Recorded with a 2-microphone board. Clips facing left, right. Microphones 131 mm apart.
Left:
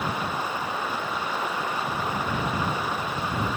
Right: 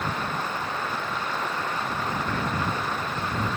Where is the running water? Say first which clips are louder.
Left 1 dB; 10° left (ahead or behind).